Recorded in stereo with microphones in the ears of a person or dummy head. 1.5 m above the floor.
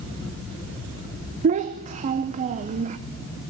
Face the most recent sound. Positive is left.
turn(degrees=-35)  # may be behind; listen again after turning